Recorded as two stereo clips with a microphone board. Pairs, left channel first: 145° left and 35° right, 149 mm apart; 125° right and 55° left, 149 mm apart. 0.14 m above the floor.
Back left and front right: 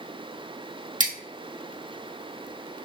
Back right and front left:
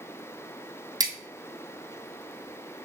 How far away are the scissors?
About 1.7 m.